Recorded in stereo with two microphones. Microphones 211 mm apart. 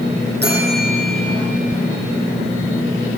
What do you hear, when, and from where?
0.4 s a bell: 50° right (ahead or behind), 8 m